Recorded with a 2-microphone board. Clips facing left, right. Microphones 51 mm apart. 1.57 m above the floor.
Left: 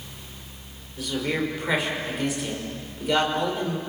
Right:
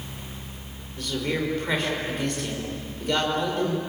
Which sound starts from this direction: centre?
A man speaking, at 1.0 s.